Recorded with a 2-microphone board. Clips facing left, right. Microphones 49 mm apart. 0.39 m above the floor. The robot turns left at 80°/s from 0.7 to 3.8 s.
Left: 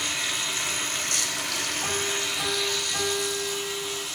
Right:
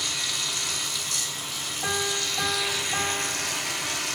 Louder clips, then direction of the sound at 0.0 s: Left 2 dB; 150° left.